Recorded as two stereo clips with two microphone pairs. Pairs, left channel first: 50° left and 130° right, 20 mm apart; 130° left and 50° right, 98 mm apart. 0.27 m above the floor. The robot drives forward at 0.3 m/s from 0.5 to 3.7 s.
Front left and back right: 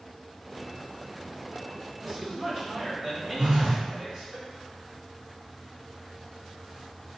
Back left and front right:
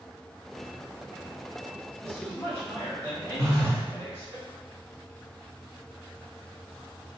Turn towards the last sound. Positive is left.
turn(degrees=-105)